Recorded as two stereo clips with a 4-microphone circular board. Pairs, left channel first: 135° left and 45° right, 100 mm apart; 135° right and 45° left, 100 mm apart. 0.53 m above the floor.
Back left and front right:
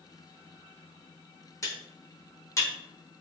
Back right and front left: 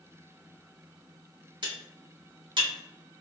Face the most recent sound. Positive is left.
turn(degrees=80)